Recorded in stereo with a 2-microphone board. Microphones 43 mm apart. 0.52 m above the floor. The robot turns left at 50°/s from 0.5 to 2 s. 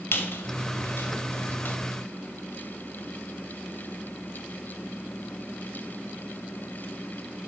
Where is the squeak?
65° left (ahead or behind), 1.5 m; by 1.8 s 45° left (ahead or behind), 1.5 m.